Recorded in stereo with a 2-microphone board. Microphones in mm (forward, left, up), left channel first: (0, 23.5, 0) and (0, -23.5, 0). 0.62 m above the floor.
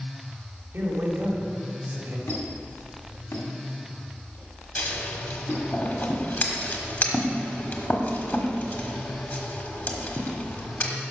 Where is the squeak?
85° left, 2 m.